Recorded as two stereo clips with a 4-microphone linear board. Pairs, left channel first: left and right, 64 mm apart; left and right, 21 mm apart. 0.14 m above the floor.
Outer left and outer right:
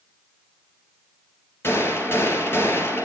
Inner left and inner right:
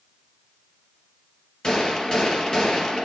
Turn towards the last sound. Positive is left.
turn(degrees=35)  # may be behind; listen again after turning